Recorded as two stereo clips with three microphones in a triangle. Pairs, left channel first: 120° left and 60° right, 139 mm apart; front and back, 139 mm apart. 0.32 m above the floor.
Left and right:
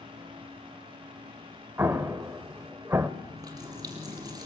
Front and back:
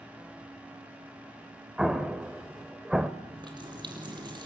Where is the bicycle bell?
No bicycle bell in this recording.